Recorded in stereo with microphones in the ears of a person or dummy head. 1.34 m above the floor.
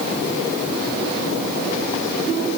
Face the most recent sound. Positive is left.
No sound to turn to.